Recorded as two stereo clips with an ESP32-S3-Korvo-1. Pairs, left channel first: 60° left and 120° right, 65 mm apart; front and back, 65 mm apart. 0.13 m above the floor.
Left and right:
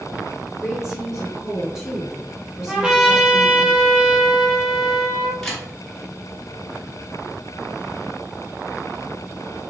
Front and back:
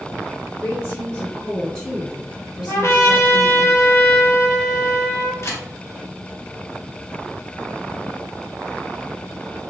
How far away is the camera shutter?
About 1.7 m.